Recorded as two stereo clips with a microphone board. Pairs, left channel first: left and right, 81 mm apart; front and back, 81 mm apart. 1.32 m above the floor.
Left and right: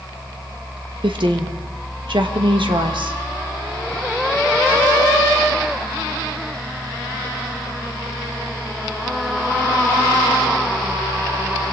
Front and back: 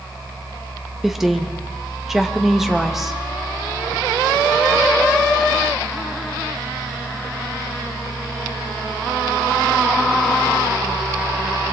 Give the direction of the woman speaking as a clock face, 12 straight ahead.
3 o'clock.